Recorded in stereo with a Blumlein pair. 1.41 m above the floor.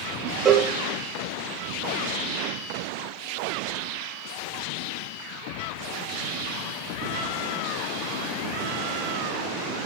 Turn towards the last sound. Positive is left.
turn(degrees=-20)